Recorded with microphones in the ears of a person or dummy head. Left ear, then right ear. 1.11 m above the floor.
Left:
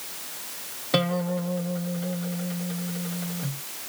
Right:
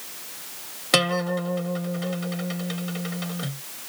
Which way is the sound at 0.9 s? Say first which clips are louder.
Right 4 dB; 65° right (ahead or behind).